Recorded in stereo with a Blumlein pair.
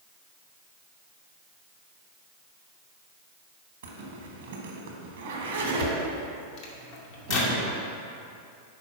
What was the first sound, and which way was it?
A zipper, 55° right.